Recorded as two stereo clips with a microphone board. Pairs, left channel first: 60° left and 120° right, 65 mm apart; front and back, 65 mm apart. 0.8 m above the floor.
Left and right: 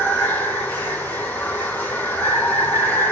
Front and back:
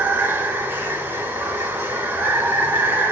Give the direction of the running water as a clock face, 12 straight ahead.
8 o'clock.